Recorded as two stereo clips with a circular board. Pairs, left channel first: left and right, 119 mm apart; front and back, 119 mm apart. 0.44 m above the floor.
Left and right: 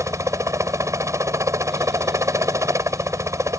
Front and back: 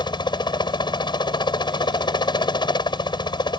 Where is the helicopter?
35° right.